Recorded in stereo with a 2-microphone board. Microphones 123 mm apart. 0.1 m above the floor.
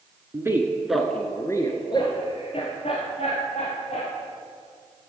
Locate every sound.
0.3 s a man speaking: 25° right (ahead or behind), 1.2 m; by 4.1 s 65° left (ahead or behind), 3 m